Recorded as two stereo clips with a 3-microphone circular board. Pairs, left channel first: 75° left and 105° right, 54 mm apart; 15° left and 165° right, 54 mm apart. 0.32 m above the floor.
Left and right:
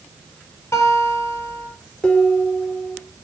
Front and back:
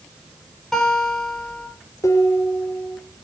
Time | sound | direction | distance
0.7 | a guitar | 100° left | 8 m
2.0 | dishes clattering | 10° left | 3.5 m